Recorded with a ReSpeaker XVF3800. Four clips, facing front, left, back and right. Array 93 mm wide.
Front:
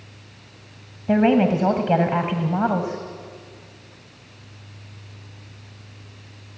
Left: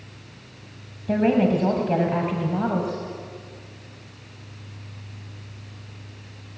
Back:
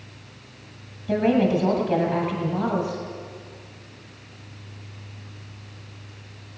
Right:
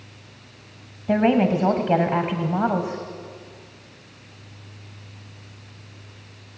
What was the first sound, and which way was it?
A woman speaking, 25° right.